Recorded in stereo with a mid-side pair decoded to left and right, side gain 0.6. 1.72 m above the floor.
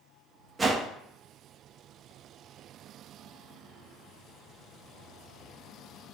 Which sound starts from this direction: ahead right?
A whoosh, at 0.6 s.